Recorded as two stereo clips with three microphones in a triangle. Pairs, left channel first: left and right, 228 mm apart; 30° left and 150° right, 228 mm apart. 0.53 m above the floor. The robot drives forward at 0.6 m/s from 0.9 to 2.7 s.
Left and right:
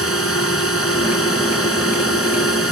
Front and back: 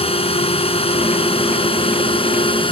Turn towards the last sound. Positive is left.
turn(degrees=95)